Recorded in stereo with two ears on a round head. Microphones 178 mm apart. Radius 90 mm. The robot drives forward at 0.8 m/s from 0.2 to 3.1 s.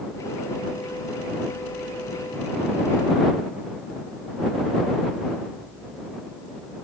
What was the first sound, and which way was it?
Only background noise.